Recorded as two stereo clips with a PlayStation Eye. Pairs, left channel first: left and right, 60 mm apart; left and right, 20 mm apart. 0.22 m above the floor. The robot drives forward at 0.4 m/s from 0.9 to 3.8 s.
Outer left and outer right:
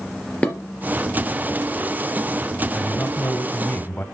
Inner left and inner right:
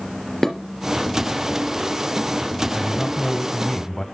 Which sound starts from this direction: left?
A man speaking, at 2.7 s.